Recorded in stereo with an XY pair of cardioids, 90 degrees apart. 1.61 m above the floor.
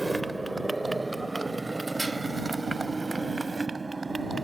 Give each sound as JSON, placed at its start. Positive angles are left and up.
{"t": 0.0, "sound": "a motorcycle", "azimuth_deg": -20}